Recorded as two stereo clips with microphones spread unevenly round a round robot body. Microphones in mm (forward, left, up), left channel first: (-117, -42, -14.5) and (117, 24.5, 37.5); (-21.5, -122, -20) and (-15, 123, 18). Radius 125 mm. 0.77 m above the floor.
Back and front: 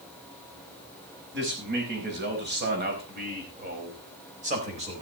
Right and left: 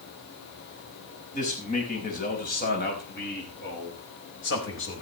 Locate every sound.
1.3 s a man speaking: 30° right, 5.5 m; by 5.0 s 50° right, 4.5 m